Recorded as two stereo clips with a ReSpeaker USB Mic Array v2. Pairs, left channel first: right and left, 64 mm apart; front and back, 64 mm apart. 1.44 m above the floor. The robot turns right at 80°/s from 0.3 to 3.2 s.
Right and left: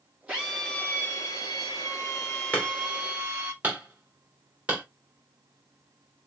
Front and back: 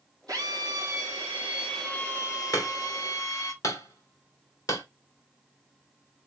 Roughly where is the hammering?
Ahead right.